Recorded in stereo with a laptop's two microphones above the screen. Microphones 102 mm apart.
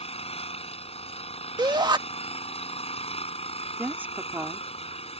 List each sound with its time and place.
0.0 s an engine running: 80° left
1.6 s a shout: 45° right (ahead or behind)
3.8 s a woman speaking: 20° right (ahead or behind)